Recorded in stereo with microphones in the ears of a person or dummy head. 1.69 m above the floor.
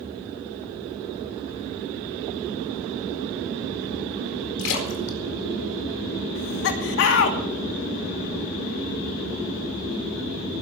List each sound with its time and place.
4.6 s a splash: 75° left (ahead or behind), 4.5 m
6.3 s laughter: 65° left (ahead or behind), 2.5 m